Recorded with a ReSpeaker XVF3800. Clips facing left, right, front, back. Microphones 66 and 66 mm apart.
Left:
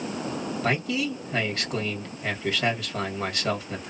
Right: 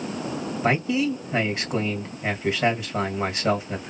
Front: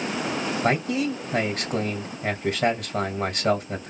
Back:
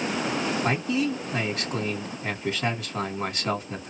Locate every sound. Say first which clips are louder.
0.6 s a man speaking: right 5 dB, front 4 dB; 20° right, 2 m